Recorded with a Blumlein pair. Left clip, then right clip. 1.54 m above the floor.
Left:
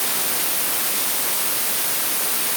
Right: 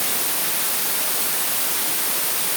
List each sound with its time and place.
Only background noise.